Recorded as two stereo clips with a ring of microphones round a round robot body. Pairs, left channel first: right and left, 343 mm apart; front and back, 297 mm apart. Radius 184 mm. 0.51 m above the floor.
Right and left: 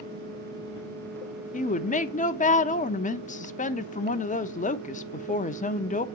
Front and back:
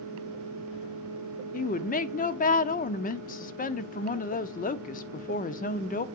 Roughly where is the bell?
I don't hear a bell.